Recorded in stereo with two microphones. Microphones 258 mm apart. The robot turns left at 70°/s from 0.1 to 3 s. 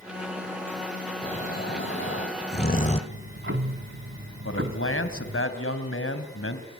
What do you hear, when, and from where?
1.2 s snoring: 20° left (ahead or behind), 1.3 m; by 3.0 s 25° left (ahead or behind), 1.3 m
3.1 s ticking: 60° right (ahead or behind), 1.6 m
4.5 s a man speaking: 65° left (ahead or behind), 2.5 m